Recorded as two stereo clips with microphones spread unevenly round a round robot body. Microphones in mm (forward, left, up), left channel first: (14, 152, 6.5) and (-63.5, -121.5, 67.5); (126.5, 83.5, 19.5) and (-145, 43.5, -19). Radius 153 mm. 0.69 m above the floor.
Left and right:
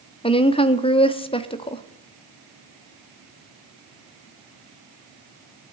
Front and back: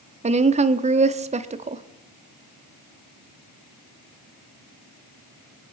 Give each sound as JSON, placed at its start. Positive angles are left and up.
{"t": 0.2, "sound": "a woman speaking", "azimuth_deg": 135, "distance_m": 0.9}